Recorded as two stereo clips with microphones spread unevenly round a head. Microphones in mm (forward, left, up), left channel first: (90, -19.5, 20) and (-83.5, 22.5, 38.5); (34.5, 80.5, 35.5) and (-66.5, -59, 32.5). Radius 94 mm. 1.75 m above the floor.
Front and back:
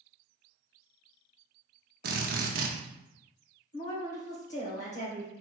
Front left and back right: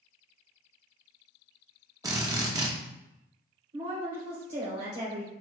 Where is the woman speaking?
70° right, 1.5 m.